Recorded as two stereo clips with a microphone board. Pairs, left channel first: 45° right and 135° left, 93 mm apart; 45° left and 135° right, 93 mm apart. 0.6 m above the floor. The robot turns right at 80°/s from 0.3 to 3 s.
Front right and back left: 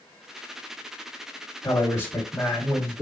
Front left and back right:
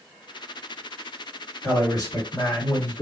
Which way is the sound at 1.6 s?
15° right.